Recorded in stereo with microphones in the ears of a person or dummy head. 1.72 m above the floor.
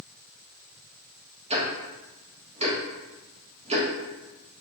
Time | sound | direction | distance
1.5 | ticking | 35° right (ahead or behind) | 0.5 m